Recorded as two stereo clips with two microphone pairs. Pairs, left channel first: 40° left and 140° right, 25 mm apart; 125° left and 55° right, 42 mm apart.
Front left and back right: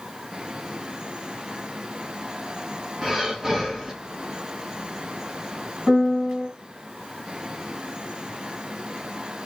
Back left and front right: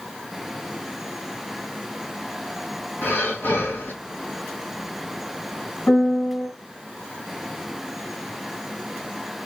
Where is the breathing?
145° left, 2.5 m.